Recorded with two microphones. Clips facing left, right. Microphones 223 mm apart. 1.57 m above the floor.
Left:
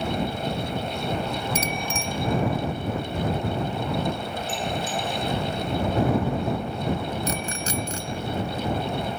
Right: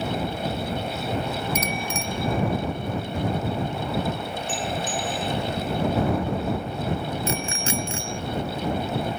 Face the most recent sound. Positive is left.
turn(degrees=40)  # may be behind; listen again after turning